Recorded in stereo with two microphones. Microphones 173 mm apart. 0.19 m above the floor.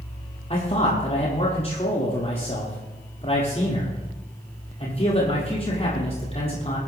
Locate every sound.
0.5 s a man speaking: 40° left (ahead or behind), 5 m